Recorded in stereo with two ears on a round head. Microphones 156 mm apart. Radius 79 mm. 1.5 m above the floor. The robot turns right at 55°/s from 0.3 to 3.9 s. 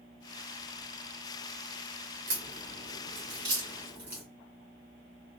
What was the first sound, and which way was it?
A crack, 80° right.